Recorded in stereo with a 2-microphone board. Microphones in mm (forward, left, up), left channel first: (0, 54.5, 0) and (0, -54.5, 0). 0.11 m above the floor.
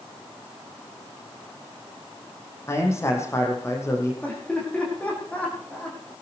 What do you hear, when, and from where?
2.7 s a man speaking: 25° left (ahead or behind), 4 m
4.2 s laughter: 15° left (ahead or behind), 6.5 m